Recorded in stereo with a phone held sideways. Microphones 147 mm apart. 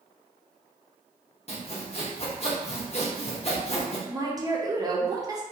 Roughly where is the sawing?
Left.